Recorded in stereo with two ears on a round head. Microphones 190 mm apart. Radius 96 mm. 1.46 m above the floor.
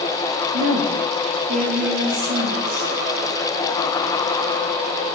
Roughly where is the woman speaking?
Right.